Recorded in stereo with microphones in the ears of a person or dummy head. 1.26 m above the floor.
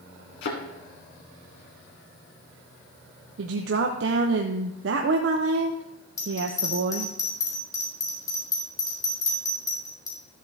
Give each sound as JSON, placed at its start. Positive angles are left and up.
{"t": 0.4, "sound": "a thud", "side_deg": 65, "distance_m": 2.5}
{"t": 3.4, "sound": "a woman speaking", "side_deg": -70, "distance_m": 0.8}
{"t": 6.2, "sound": "a bell", "side_deg": 25, "distance_m": 3.5}